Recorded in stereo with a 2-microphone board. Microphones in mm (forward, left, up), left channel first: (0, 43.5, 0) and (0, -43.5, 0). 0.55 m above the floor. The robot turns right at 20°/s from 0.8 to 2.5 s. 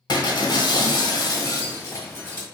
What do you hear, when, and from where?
0.1 s breaking glass: 125° left, 1.0 m; by 2.5 s 160° left, 1.0 m